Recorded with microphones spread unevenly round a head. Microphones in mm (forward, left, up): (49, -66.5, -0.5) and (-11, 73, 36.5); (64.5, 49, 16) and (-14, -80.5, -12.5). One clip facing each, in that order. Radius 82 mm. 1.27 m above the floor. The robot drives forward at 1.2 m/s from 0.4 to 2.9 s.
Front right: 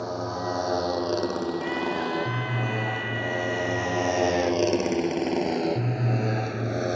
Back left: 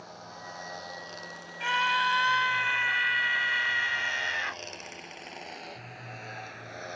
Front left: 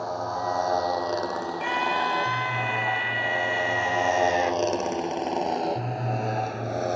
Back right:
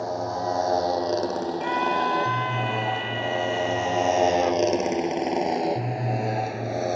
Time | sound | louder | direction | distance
0.0 | a motorcycle | front right 16 dB, back right 2 dB | 50° right | ?
1.6 | a scream | front right 5 dB, back right 1 dB | 135° left | ?